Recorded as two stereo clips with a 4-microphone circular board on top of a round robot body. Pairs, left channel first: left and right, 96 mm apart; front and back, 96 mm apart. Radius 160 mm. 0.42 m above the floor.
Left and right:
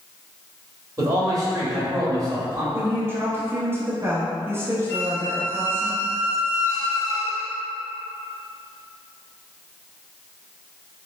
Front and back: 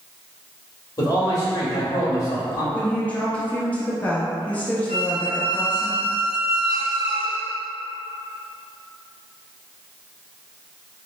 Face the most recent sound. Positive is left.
turn(degrees=30)